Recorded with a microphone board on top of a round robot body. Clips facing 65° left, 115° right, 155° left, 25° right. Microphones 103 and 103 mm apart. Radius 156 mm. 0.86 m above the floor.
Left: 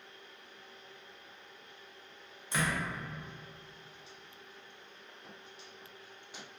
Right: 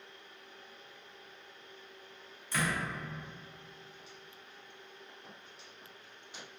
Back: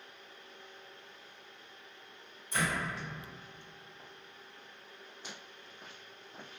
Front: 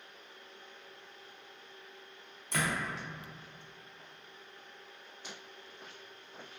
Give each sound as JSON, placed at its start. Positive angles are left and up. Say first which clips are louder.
{"t": 2.5, "sound": "a door slam", "louder": "even, even", "azimuth_deg": 0, "distance_m": 0.8}